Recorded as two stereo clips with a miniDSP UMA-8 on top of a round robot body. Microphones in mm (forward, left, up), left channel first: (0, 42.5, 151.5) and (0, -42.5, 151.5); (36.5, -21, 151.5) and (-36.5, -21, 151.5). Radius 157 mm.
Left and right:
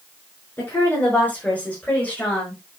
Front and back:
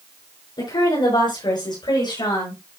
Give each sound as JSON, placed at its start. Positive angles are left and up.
{"t": 0.6, "sound": "a woman speaking", "azimuth_deg": 25, "distance_m": 6.5}